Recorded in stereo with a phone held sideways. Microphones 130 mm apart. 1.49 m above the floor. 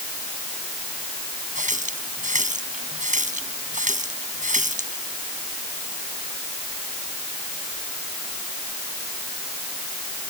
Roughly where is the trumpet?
I don't hear a trumpet.